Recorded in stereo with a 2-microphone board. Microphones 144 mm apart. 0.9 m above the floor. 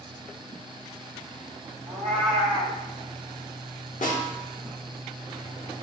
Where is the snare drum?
70° left (ahead or behind), 1.0 m.